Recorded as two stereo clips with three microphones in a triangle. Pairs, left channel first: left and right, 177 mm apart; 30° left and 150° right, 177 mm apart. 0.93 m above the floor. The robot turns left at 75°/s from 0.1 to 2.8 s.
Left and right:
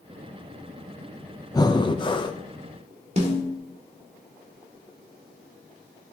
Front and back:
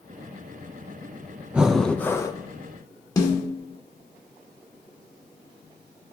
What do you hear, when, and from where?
1.5 s breathing: 135° left, 0.6 m; by 2.4 s 70° left, 0.6 m
3.2 s a snare drum: 40° right, 1.9 m